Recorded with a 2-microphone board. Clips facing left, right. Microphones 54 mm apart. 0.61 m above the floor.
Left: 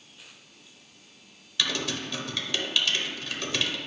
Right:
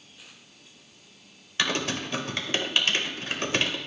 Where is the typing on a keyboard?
40° right (ahead or behind), 0.7 m.